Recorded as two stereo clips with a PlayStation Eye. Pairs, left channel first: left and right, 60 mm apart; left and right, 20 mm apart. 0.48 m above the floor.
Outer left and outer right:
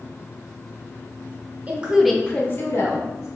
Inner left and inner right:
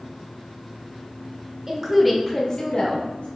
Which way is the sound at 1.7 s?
25° right (ahead or behind).